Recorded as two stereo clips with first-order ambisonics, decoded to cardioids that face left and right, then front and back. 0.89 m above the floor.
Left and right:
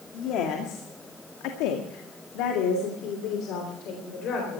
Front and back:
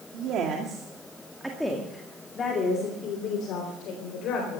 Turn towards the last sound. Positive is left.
turn(degrees=40)